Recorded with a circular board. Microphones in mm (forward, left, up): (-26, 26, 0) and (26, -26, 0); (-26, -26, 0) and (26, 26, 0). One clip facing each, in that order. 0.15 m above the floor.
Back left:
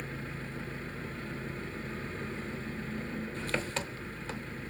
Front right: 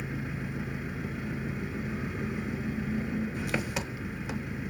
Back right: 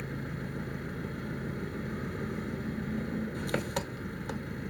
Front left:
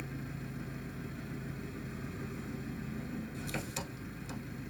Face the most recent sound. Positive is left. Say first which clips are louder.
# front right 4 dB, back right 5 dB
turn(degrees=-120)